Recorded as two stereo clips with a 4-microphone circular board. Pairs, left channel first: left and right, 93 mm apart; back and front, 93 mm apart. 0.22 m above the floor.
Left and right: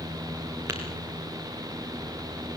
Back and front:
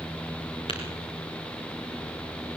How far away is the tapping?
About 4.5 m.